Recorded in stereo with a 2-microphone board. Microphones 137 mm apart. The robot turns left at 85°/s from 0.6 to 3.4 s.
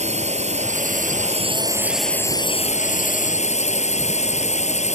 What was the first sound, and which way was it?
A drone, 60° right.